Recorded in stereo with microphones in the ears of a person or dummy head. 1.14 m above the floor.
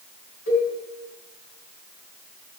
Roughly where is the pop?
No pop in this recording.